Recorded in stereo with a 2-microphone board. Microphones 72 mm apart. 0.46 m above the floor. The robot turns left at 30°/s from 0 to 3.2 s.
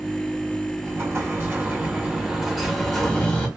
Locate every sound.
0.8 s an explosion: 120° right, 1.0 m; by 3.5 s 170° left, 1.0 m